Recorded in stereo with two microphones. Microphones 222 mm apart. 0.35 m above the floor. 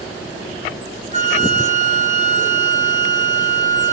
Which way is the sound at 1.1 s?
30° right (ahead or behind).